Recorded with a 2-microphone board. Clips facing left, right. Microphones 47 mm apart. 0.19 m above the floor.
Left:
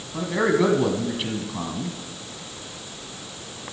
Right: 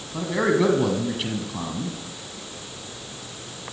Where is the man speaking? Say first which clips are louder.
Even; centre (ahead or behind), 1.1 m.